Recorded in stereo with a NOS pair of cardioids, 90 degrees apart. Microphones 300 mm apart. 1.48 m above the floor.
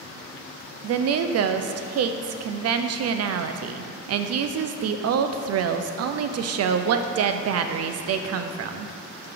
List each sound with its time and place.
0.8 s a woman speaking: 55° right, 0.5 m